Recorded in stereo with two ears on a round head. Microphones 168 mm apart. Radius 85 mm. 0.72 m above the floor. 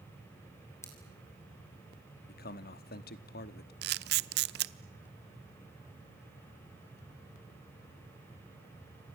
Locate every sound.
0.8 s scissors: 15° left (ahead or behind), 5 m
2.3 s a man speaking: 50° left (ahead or behind), 1.1 m
3.8 s a camera shutter: 55° right (ahead or behind), 0.8 m